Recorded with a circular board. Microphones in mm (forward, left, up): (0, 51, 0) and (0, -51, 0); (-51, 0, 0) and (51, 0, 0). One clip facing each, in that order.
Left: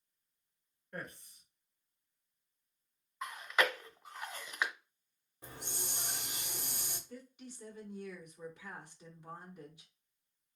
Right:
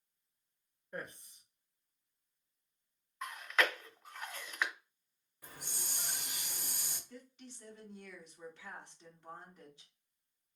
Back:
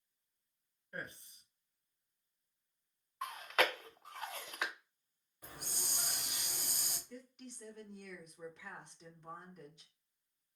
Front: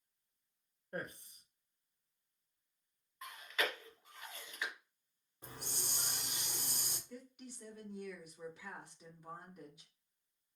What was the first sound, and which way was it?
A man speaking, 25° right.